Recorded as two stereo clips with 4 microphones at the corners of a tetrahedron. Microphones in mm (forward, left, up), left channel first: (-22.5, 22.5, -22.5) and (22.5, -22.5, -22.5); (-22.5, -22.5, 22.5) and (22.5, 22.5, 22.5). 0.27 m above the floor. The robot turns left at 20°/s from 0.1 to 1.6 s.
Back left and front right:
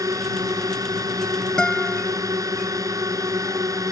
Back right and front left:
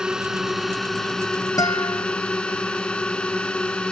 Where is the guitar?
145° right.